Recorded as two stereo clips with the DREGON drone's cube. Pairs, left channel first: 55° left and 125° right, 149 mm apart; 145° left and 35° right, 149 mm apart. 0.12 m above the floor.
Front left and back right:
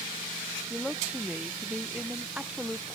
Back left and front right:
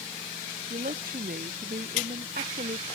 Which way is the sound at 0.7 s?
40° right.